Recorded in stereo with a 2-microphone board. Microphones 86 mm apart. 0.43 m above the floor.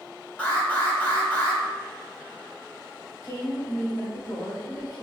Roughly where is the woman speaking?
Left.